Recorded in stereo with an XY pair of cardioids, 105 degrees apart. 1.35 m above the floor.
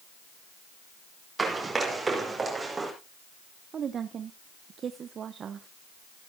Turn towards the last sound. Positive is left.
turn(degrees=-50)